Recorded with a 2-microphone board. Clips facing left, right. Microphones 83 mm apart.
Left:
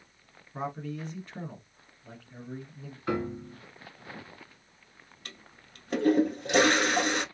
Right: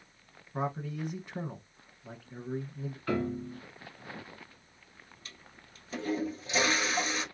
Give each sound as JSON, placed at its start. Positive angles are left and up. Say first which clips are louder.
{"t": 0.5, "sound": "a man speaking", "louder": "right 1 dB", "side_deg": -15, "distance_m": 1.0}
{"t": 3.1, "sound": "a piano", "louder": "left 1 dB", "side_deg": 20, "distance_m": 0.9}
{"t": 5.2, "sound": "a toilet flushing", "louder": "left 7 dB", "side_deg": 60, "distance_m": 0.6}